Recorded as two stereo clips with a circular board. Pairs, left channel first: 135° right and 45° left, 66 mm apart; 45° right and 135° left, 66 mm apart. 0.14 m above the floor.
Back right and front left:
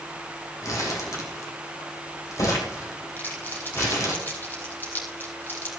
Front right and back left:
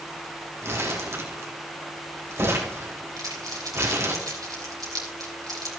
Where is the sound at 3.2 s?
165° left, 3 m.